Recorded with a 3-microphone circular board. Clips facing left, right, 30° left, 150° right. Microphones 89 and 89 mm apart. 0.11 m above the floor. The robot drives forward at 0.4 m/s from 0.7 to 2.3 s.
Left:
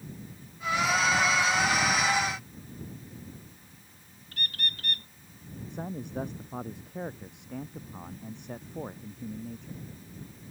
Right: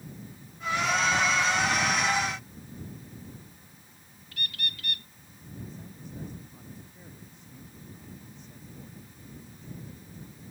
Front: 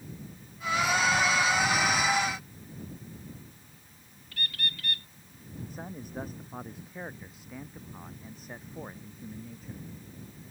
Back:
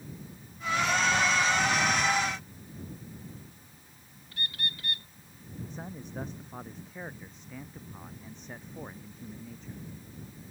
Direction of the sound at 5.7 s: 115° left.